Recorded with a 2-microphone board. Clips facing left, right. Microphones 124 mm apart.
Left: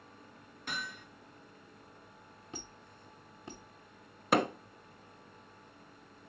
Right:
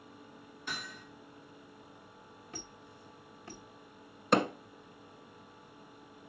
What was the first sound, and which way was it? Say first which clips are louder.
Hammering: left 2 dB; 55° left (ahead or behind).